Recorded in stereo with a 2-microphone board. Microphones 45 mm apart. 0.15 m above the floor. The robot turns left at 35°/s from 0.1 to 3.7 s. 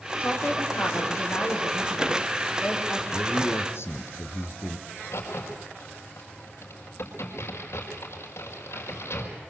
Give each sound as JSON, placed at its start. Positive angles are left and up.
{"t": 0.2, "sound": "a woman speaking", "azimuth_deg": 130, "distance_m": 7.0}
{"t": 3.1, "sound": "a man speaking", "side_deg": 55, "distance_m": 3.0}
{"t": 4.9, "sound": "a crack", "side_deg": 65, "distance_m": 5.5}